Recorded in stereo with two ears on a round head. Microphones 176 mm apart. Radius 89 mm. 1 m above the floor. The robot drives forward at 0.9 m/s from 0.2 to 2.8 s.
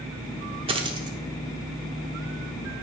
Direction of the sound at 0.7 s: 30° right (ahead or behind).